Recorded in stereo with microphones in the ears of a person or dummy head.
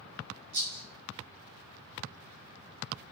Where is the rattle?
50° right (ahead or behind), 1.0 m.